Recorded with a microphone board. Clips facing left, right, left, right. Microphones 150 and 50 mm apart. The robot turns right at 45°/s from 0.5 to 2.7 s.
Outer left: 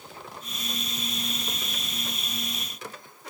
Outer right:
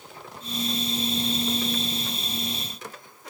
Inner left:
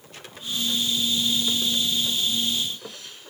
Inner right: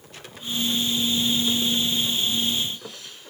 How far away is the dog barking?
No dog barking in this recording.